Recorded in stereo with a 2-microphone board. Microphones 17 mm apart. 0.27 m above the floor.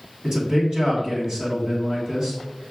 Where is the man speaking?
55° right (ahead or behind), 2.5 m.